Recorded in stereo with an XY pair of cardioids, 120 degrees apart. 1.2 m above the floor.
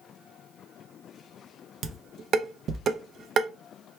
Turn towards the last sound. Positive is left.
turn(degrees=-55)